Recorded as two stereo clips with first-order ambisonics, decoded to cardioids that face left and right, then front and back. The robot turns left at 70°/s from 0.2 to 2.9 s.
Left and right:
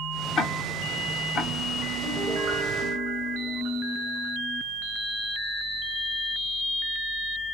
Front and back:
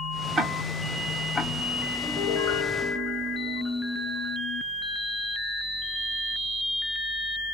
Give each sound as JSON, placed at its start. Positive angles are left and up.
{"t": 0.4, "sound": "ticking", "azimuth_deg": 145, "distance_m": 0.8}
{"t": 2.0, "sound": "a piano", "azimuth_deg": 10, "distance_m": 2.0}